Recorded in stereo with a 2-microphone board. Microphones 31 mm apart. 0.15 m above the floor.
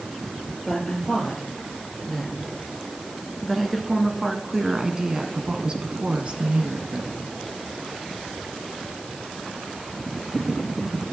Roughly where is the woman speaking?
Centre.